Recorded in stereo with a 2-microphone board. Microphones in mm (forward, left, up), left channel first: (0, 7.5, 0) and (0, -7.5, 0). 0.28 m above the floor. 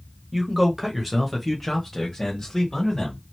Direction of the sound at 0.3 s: 15° right (ahead or behind).